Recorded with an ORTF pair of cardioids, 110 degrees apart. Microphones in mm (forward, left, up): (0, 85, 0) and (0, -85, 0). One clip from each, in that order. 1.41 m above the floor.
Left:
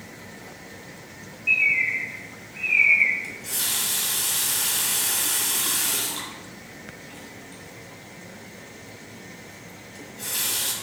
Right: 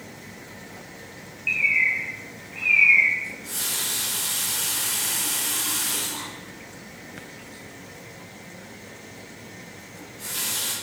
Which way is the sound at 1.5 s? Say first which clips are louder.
Even; 35° right.